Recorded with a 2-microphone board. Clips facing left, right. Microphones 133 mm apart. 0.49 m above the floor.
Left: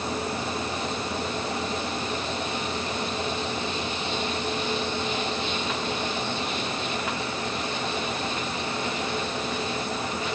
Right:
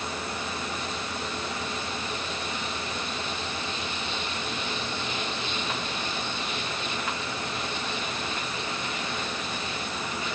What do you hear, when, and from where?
Only background noise.